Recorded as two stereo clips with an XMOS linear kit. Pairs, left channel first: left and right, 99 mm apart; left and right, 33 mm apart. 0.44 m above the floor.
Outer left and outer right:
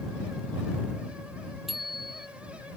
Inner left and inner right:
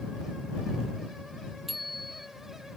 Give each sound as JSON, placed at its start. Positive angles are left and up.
{"t": 1.7, "sound": "a bicycle bell", "side_deg": 0}